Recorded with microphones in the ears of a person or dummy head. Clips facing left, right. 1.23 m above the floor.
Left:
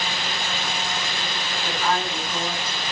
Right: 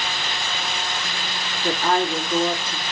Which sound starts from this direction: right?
A woman speaking, at 1.6 s.